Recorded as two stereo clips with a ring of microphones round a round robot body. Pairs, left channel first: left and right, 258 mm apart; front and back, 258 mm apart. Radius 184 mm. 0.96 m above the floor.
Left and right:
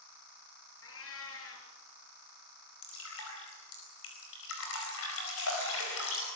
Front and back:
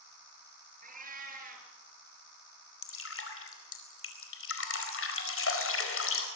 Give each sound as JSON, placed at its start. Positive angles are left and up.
{"t": 0.8, "sound": "a cat meowing", "azimuth_deg": 125, "distance_m": 4.0}
{"t": 2.8, "sound": "dripping", "azimuth_deg": 35, "distance_m": 4.5}